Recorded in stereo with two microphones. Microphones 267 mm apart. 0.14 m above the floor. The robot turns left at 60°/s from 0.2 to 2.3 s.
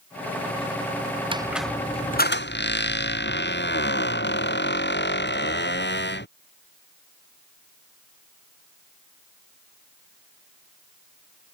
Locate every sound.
1.3 s a squeak: 160° right; by 6.3 s 140° left